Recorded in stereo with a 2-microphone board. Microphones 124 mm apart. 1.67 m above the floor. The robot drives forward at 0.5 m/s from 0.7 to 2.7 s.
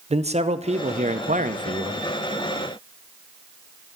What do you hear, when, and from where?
0.1 s a man speaking: 60° right (ahead or behind), 0.7 m